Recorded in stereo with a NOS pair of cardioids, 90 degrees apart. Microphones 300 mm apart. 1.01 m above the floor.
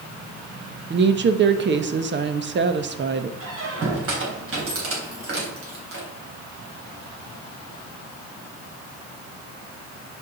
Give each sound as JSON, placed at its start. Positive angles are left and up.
{"t": 0.9, "sound": "a woman speaking", "azimuth_deg": -40, "distance_m": 0.9}
{"t": 3.4, "sound": "a squeak", "azimuth_deg": -45, "distance_m": 3.0}